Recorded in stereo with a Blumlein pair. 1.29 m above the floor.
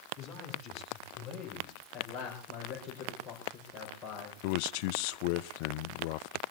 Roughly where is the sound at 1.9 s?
Ahead.